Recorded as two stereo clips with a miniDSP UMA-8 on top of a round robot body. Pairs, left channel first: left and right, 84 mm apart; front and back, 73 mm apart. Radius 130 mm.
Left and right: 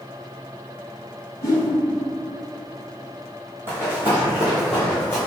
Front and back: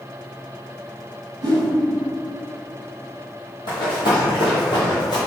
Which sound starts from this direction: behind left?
A whoosh, at 1.4 s.